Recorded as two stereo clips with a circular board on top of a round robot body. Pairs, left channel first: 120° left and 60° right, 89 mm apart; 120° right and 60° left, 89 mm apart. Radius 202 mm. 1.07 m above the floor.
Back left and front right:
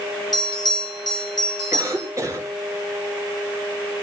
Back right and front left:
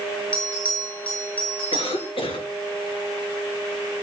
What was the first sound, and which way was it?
A bell, 165° left.